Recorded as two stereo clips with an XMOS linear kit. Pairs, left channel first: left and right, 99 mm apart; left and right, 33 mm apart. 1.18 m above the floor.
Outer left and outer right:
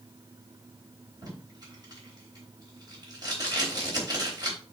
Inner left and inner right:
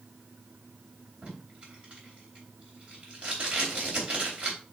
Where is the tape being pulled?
45° right (ahead or behind), 3.5 m.